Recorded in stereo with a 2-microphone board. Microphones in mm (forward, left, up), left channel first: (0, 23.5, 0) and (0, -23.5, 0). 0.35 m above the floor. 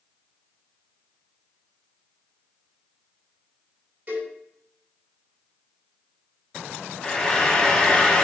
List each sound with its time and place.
4.1 s a cowbell: 40° right (ahead or behind), 2.0 m
7.0 s frying: 15° left (ahead or behind), 0.6 m